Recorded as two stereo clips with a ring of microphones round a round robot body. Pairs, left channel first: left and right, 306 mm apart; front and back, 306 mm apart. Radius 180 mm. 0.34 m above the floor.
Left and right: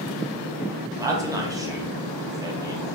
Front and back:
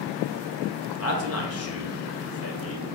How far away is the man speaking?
About 1.2 m.